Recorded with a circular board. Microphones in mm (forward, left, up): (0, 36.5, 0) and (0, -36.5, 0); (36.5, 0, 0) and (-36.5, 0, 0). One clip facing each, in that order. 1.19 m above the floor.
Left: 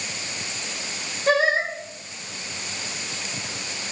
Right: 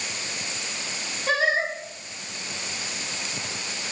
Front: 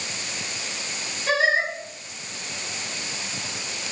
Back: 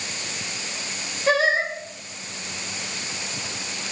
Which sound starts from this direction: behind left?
Singing, at 1.3 s.